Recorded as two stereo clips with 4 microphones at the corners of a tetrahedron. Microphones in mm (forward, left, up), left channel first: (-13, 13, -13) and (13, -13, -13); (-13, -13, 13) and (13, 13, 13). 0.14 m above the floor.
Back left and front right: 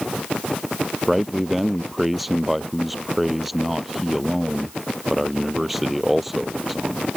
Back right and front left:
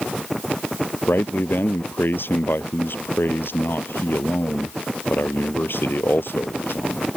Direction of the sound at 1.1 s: 125° right.